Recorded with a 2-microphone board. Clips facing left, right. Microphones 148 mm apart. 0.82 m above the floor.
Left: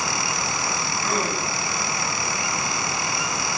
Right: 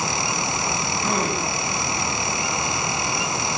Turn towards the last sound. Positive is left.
turn(degrees=-35)  # may be behind; listen again after turning